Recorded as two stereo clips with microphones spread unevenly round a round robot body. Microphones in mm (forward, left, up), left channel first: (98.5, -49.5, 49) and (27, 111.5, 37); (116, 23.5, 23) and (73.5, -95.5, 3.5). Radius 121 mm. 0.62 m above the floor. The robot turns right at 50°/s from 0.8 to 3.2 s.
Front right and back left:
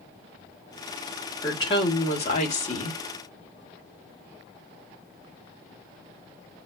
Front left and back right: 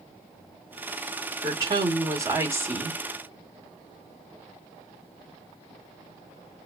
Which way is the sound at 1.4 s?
130° right.